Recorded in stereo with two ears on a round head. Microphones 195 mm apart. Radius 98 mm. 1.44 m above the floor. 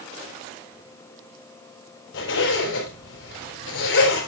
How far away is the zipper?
About 5 m.